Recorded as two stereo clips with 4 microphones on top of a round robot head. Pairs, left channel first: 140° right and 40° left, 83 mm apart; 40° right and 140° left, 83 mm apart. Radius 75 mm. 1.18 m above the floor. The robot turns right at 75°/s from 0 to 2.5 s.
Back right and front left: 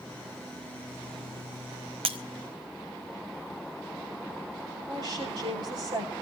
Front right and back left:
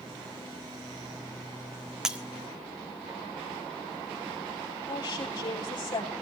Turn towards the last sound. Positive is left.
turn(degrees=5)